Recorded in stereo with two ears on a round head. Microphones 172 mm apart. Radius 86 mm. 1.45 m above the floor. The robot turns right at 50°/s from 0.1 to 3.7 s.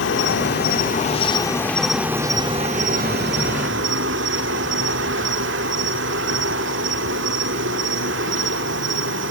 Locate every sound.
0.0 s an insect: 90° left, 2.5 m; by 9.3 s 90° right, 2.5 m